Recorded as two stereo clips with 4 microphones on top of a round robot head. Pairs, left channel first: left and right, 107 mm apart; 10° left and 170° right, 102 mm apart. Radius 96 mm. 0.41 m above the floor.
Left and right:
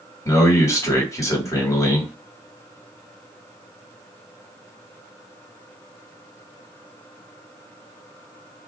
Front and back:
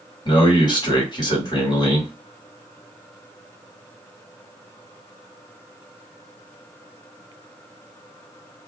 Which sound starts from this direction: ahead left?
A man speaking, at 0.2 s.